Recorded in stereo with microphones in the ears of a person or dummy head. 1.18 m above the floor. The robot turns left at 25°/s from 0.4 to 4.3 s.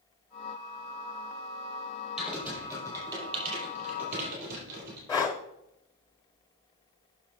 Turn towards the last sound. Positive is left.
turn(degrees=20)  # may be behind; listen again after turning